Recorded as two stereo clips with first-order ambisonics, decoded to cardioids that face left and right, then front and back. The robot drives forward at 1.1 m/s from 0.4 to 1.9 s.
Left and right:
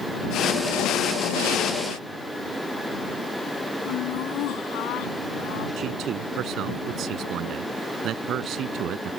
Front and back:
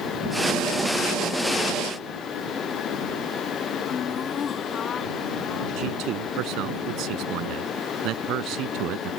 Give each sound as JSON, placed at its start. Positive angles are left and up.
{"t": 3.9, "sound": "laughter", "azimuth_deg": 65}
{"t": 5.8, "sound": "a man speaking", "azimuth_deg": -140}